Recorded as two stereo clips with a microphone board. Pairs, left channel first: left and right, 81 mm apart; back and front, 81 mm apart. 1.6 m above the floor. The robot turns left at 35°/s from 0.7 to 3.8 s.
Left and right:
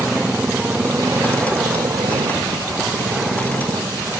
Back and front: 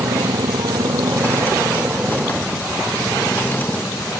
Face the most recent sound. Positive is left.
turn(degrees=-135)